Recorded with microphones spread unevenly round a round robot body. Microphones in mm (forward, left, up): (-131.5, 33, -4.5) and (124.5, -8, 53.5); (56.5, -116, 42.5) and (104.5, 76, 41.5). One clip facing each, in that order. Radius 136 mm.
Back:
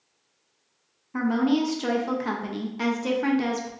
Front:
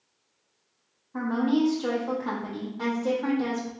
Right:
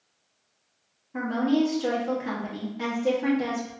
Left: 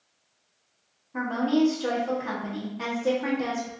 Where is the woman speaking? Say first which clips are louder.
Back 2 dB, even; straight behind, 0.7 m.